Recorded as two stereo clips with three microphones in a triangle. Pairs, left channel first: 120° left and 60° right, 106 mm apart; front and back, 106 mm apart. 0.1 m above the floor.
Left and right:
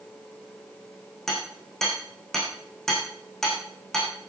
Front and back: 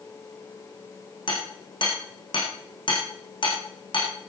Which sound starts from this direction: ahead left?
Hammering, at 1.3 s.